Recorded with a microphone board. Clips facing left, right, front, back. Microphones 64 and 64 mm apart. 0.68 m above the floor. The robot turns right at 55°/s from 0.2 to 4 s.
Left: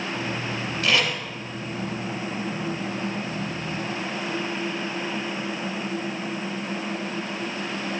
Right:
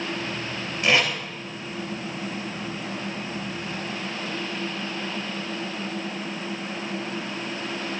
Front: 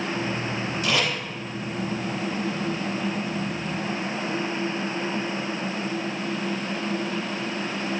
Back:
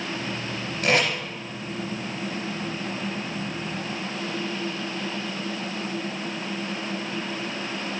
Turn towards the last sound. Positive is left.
turn(degrees=10)